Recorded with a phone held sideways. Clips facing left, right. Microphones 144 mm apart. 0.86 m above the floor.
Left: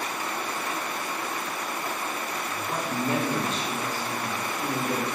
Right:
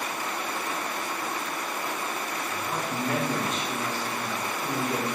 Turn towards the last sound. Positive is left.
turn(degrees=45)  # may be behind; listen again after turning